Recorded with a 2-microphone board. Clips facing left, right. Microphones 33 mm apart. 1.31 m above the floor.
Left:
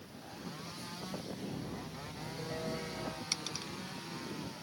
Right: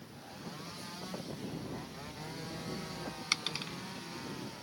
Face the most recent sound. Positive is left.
turn(degrees=-40)  # may be behind; listen again after turning